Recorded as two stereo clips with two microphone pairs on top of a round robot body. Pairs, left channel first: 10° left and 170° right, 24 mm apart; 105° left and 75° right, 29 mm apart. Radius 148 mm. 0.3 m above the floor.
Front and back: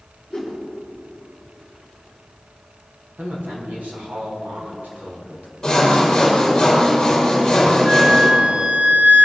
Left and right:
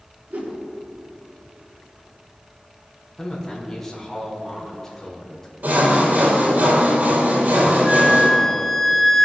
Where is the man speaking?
170° right, 4.5 m.